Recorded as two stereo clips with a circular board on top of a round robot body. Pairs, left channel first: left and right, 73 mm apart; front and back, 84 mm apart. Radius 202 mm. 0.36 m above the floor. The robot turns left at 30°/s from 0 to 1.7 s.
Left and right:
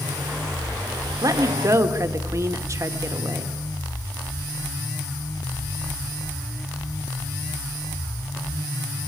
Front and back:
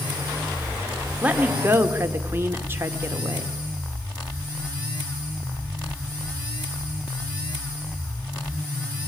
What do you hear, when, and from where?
1.2 s a woman speaking: 110° right, 2 m; by 3.5 s 125° right, 2 m